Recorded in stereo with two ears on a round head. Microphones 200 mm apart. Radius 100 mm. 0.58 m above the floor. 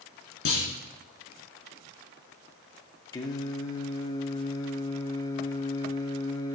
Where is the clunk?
65° left (ahead or behind), 2 m.